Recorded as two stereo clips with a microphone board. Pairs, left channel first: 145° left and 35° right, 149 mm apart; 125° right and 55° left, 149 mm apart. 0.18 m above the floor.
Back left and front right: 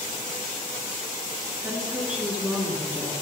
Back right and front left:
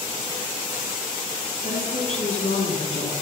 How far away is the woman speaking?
About 2 m.